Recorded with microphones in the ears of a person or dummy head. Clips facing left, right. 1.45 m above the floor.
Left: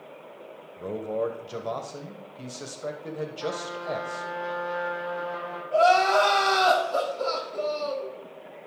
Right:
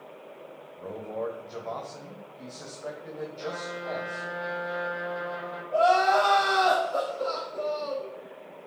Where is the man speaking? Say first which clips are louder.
Left 5 dB; 40° left (ahead or behind), 1.0 m.